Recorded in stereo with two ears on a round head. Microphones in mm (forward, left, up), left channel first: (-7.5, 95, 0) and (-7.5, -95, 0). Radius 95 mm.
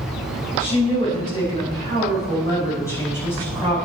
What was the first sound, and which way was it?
A woman speaking, 30° left (ahead or behind).